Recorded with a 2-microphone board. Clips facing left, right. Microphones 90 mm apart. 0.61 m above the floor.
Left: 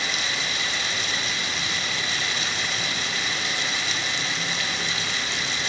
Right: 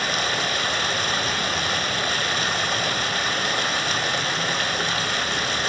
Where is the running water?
50° right (ahead or behind), 1.5 m.